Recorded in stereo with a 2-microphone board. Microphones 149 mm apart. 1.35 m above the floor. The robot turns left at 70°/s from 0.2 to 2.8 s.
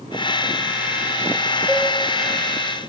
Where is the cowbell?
10° right (ahead or behind), 2 m; by 1.9 s 5° left (ahead or behind), 2 m.